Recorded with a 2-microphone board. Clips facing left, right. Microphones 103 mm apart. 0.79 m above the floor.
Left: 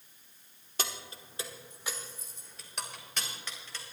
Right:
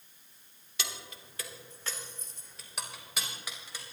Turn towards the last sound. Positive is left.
turn(degrees=-15)  # may be behind; listen again after turning